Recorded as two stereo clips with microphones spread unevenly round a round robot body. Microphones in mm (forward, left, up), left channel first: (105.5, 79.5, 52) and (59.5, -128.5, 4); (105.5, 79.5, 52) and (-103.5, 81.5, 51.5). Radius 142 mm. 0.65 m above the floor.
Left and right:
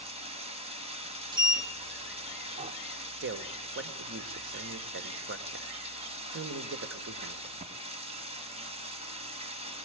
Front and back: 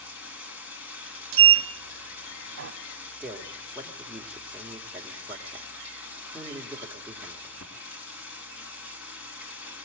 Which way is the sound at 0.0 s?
40° right.